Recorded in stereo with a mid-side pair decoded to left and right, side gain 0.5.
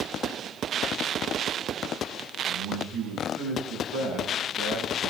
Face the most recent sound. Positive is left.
turn(degrees=-70)